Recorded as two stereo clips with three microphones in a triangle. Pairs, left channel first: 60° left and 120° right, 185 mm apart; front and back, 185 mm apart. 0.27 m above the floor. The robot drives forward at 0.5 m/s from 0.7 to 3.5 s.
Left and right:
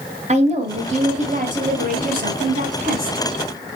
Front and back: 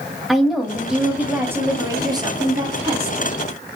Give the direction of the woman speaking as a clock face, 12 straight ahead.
3 o'clock.